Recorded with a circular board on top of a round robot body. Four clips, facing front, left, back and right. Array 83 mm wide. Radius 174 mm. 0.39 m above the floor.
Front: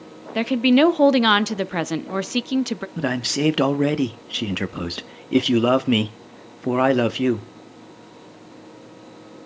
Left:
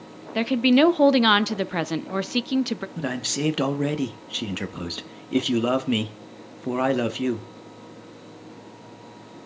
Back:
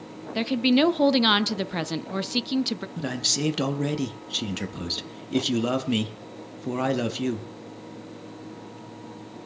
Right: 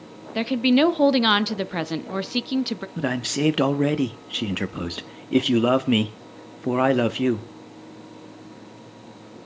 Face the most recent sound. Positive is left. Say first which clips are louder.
# right 6 dB, front 9 dB
turn(degrees=-25)